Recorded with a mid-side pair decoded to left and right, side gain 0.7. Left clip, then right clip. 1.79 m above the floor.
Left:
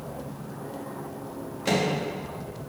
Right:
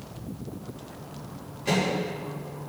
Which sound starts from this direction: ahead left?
A microwave, at 1.6 s.